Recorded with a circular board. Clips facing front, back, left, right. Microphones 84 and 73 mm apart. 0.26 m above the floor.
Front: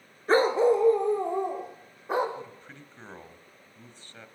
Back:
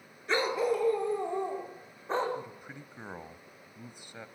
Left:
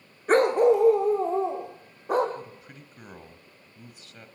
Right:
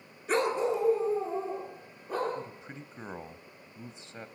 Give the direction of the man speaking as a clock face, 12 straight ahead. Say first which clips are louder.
Even, right 1 dB; 4 o'clock.